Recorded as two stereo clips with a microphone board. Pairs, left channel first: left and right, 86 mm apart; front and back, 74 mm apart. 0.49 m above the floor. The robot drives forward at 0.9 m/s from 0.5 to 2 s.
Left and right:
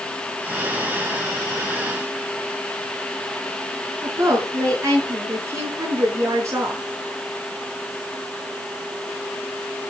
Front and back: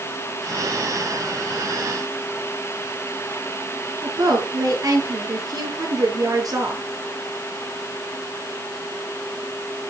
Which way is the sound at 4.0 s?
145° right.